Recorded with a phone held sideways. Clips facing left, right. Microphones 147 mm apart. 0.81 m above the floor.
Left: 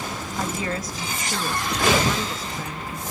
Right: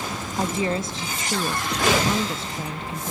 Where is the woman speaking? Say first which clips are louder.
Right 4 dB; 25° right (ahead or behind), 0.5 m.